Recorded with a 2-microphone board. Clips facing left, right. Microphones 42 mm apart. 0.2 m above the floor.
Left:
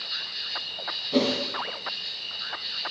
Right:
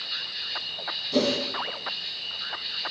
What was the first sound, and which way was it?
An insect, 15° right (ahead or behind).